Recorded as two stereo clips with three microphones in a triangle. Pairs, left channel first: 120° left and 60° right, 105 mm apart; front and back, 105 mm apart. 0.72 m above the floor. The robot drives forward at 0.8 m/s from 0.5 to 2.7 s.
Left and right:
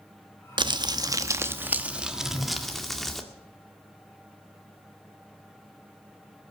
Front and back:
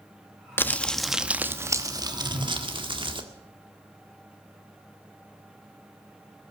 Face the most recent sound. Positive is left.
turn(degrees=-170)